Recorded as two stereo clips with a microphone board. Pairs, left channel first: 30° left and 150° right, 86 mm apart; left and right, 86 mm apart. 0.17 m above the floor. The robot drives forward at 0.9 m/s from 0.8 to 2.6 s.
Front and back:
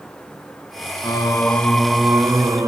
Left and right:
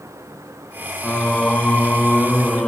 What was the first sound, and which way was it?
Singing, 15° left.